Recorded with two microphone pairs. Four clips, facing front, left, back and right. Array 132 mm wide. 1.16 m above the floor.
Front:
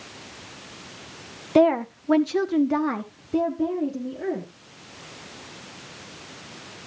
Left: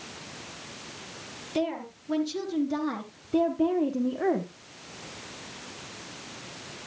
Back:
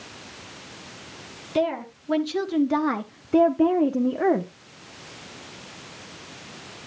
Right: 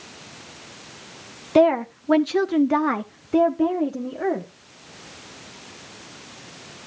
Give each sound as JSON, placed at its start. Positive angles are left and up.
{"t": 1.6, "sound": "a woman speaking", "azimuth_deg": -55, "distance_m": 1.2}